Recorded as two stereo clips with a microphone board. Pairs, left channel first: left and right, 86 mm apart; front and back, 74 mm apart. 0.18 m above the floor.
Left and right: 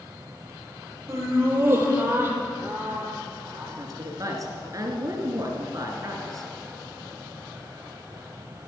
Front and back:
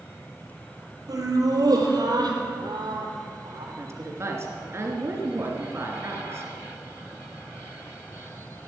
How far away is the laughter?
About 4 m.